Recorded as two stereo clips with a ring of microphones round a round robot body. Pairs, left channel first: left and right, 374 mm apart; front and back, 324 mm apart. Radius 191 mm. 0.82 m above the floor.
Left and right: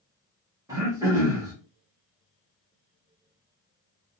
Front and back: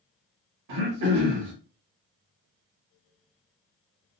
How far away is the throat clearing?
About 0.9 m.